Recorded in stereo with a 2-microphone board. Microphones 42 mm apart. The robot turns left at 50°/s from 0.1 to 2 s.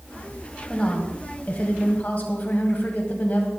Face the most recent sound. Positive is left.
turn(degrees=90)